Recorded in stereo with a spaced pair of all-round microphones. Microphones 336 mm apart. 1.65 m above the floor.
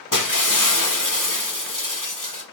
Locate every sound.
0.1 s breaking glass: 65° left (ahead or behind), 1.5 m